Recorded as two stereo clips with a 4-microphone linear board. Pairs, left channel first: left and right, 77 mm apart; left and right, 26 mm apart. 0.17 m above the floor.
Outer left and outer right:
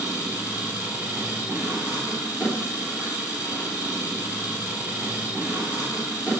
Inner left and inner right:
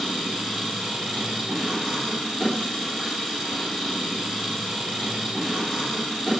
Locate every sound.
0.0 s an engine running: 20° right (ahead or behind), 2.5 m